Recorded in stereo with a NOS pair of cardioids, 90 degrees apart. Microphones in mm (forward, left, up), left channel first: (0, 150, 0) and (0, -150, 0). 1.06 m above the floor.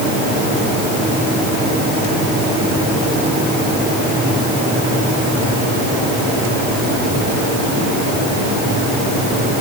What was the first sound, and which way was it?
Only background noise.